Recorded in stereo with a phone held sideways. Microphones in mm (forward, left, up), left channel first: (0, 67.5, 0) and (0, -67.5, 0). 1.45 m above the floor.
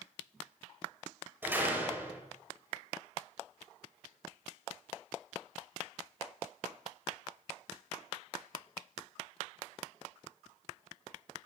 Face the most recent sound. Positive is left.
turn(degrees=-15)  # may be behind; listen again after turning